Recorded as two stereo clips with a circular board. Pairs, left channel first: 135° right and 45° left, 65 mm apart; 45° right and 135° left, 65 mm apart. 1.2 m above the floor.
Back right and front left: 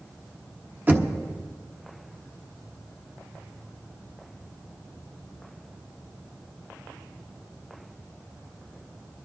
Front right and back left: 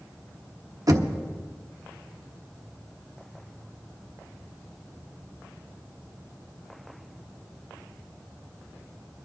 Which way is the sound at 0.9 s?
105° left.